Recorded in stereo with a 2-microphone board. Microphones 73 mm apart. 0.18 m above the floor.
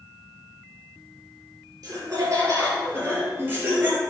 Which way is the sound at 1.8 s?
45° right (ahead or behind).